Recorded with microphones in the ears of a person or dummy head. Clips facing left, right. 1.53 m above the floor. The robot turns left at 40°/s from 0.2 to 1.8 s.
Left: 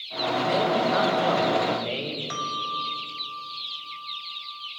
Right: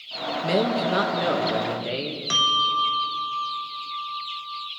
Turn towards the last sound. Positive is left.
turn(degrees=-50)  # may be behind; listen again after turning